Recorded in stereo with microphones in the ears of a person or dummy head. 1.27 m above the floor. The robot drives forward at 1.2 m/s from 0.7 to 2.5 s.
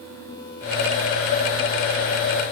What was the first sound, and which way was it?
Only background noise.